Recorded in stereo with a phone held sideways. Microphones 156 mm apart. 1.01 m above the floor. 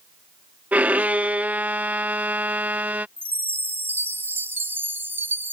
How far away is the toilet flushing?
I don't hear a toilet flushing.